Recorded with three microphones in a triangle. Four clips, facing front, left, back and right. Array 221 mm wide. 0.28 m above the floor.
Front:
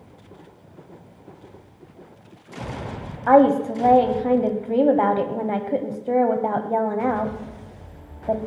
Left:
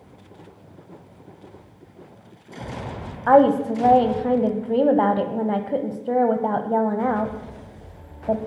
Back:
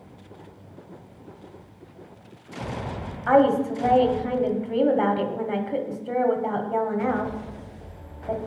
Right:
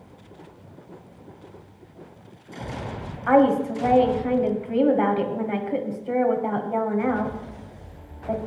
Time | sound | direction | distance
3.3 | a woman speaking | 50° left | 1.8 m